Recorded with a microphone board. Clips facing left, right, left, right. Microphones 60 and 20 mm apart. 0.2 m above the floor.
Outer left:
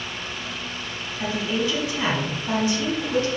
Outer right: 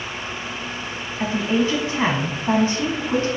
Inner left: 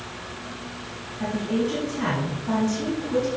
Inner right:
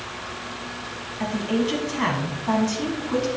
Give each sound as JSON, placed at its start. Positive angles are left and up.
{"t": 1.2, "sound": "a woman speaking", "side_deg": -35, "distance_m": 1.3}